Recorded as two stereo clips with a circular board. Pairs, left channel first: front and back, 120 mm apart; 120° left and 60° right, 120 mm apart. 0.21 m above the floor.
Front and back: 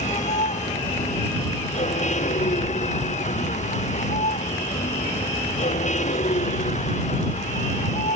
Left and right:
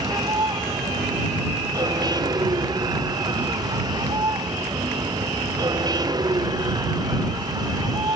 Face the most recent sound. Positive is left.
turn(degrees=-5)